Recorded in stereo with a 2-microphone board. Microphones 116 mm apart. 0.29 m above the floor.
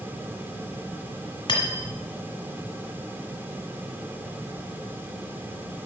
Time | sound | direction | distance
1.5 | cutlery clinking | 45° left (ahead or behind) | 1.2 m